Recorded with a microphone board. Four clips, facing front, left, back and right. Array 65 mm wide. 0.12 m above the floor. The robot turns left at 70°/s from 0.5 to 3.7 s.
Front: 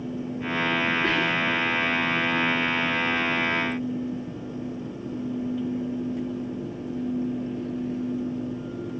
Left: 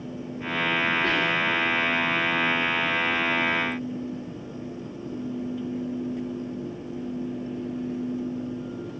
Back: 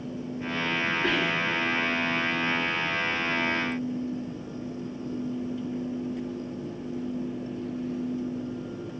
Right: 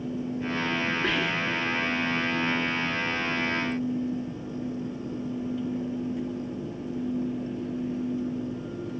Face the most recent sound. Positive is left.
turn(degrees=65)